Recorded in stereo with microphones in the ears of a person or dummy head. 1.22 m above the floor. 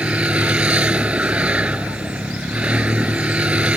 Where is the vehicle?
Centre (ahead or behind).